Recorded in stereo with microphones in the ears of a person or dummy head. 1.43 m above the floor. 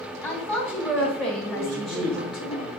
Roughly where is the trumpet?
I don't hear a trumpet.